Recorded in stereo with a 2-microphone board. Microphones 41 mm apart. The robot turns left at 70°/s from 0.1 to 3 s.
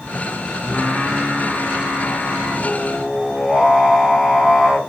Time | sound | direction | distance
0.6 | singing | 165° left | 3.5 m